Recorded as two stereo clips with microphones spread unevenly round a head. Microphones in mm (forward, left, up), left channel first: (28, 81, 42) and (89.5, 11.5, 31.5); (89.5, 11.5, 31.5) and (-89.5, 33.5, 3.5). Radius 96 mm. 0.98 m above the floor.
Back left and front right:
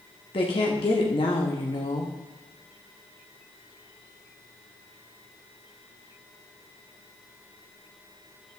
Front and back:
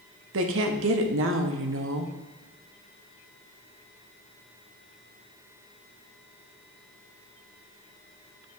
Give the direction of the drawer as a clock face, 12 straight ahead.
No drawer in this recording.